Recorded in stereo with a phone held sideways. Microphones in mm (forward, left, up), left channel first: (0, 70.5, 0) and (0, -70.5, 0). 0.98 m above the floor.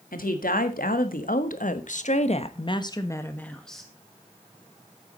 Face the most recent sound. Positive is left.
turn(degrees=0)  # may be behind; listen again after turning